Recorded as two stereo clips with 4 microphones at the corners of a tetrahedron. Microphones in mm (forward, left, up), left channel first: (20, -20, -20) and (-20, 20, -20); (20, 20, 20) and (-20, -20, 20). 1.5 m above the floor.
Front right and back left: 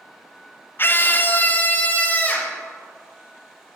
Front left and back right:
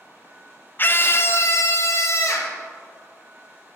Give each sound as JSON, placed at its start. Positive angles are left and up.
{"t": 0.8, "sound": "a scream", "azimuth_deg": -5, "distance_m": 0.6}